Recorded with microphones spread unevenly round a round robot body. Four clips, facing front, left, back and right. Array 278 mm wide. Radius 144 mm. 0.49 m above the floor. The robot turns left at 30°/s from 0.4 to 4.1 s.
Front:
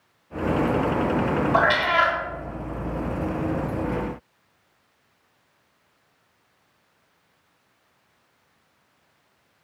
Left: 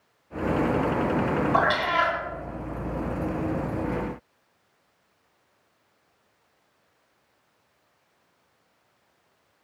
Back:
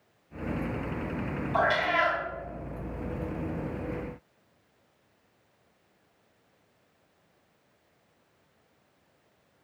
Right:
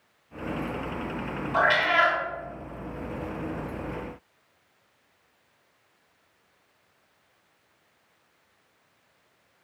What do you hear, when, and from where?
1.5 s a cat meowing: 20° left, 0.7 m; by 2.2 s straight ahead, 0.7 m